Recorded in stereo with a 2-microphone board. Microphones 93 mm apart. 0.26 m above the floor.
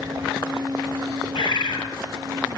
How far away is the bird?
About 6.5 m.